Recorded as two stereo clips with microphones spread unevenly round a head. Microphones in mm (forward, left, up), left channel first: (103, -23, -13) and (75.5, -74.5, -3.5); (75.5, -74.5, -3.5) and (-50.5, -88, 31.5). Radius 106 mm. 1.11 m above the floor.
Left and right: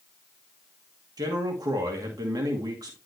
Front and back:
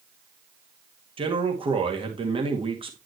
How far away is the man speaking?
About 2 m.